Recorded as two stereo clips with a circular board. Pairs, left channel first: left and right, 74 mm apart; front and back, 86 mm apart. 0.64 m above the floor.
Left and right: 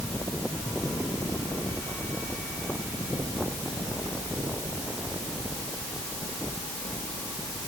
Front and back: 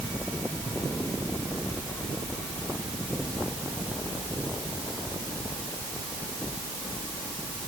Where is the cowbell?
I don't hear a cowbell.